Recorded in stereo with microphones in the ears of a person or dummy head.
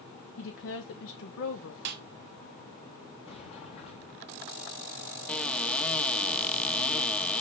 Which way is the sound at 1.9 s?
45° right (ahead or behind).